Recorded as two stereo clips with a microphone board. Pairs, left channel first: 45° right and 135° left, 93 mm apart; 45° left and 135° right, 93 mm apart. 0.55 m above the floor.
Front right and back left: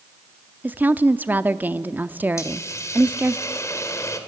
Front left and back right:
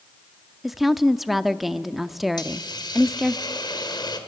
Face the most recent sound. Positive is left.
turn(degrees=10)